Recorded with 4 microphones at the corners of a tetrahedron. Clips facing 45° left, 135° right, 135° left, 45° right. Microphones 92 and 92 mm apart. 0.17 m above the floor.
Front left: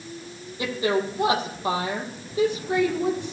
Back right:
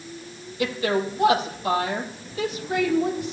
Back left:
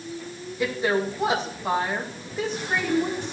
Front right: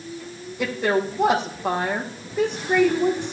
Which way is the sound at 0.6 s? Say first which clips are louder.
Even, front right 2 dB; 20° right.